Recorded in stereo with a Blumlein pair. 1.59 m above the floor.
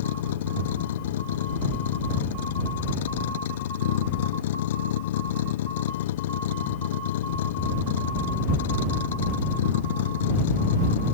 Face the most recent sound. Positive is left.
turn(degrees=55)